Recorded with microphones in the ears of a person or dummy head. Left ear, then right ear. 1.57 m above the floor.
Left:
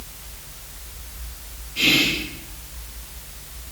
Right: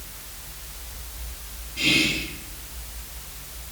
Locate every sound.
1.8 s whispering: 75° left (ahead or behind), 0.6 m